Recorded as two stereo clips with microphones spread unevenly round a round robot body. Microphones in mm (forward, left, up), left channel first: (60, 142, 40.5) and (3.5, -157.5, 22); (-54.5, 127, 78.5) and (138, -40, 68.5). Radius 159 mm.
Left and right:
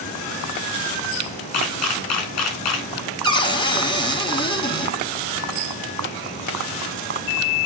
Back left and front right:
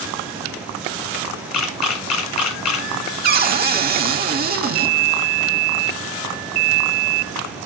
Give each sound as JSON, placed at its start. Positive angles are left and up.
{"t": 1.5, "sound": "a camera shutter", "azimuth_deg": 125, "distance_m": 1.8}
{"t": 3.2, "sound": "a cupboard door", "azimuth_deg": 5, "distance_m": 1.0}